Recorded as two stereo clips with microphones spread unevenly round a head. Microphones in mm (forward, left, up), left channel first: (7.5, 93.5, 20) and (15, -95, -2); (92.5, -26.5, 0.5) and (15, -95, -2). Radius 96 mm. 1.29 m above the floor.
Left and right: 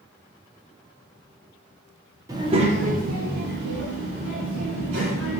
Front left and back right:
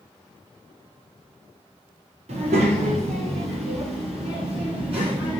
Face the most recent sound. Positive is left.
turn(degrees=-110)